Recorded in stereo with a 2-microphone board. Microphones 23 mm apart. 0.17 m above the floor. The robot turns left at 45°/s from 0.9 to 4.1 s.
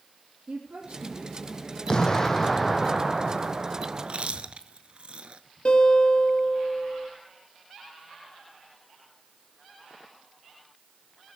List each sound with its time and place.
0.5 s a woman speaking: 115° right, 5 m; by 2.9 s 155° left, 5 m
1.9 s an explosion: 30° left, 1.2 m; by 4.3 s 70° right, 1.2 m
4.0 s chewing: 60° right (ahead or behind), 0.8 m; by 5.4 s 55° right (ahead or behind), 0.8 m
5.7 s a guitar: 45° left (ahead or behind), 3.5 m